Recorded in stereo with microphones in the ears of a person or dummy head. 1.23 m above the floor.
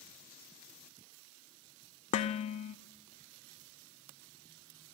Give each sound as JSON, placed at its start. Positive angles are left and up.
{"t": 2.1, "sound": "dishes clattering", "side_deg": 40, "distance_m": 0.5}